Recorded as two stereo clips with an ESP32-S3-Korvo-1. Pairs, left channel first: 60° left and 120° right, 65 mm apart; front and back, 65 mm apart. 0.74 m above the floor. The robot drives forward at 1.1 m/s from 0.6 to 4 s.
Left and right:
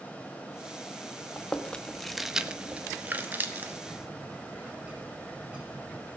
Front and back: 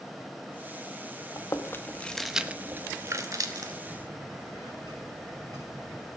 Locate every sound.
1.4 s chewing: 5° right, 1.3 m; by 3.8 s straight behind, 1.9 m
3.9 s a bird: 170° left, 6.5 m